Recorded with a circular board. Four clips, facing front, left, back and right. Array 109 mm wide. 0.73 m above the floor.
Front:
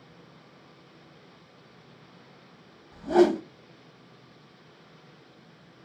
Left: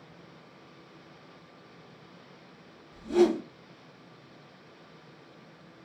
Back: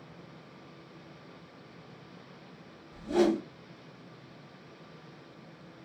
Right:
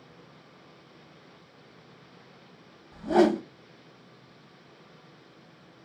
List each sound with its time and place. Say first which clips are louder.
2.9 s a whoosh: right 2 dB, front 6 dB; 55° right, 0.6 m